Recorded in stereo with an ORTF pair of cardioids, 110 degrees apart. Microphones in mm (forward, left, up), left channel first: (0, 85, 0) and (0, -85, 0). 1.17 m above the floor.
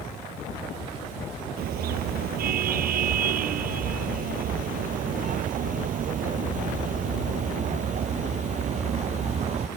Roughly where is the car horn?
Ahead right.